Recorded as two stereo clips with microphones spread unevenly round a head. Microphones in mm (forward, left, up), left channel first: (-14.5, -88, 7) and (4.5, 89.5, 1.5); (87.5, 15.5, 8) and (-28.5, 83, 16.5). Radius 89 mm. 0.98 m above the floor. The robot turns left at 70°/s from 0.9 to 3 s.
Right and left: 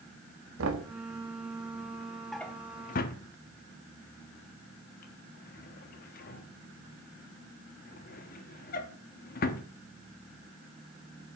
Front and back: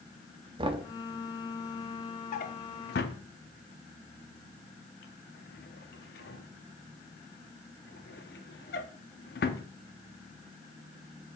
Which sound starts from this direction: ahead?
A drawer, at 2.3 s.